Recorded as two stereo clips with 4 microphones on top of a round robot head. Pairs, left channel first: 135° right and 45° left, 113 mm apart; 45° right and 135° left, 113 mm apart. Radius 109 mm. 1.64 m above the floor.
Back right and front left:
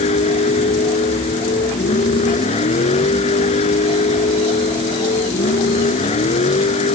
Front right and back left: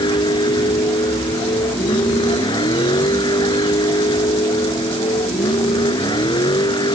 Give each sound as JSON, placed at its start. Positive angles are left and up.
{"t": 0.0, "sound": "a vehicle", "azimuth_deg": -100}